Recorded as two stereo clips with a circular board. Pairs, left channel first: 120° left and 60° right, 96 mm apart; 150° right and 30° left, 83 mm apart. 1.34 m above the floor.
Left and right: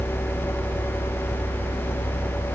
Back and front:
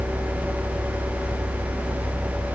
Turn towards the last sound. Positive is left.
No sound to turn to.